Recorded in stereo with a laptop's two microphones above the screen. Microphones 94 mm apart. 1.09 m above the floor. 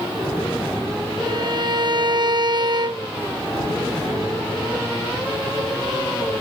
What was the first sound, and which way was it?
A violin, 45° right (ahead or behind).